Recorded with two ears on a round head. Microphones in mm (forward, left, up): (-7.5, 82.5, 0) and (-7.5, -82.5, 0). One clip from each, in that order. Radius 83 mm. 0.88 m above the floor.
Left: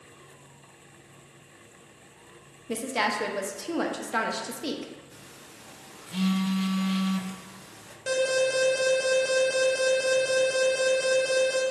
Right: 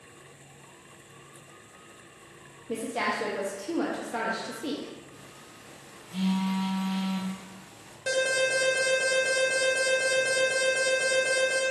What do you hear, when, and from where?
2.7 s a woman speaking: 45° left (ahead or behind), 0.5 m
5.1 s a phone buzzing: 50° left (ahead or behind), 0.5 m
8.1 s an alarm: 5° right (ahead or behind), 0.8 m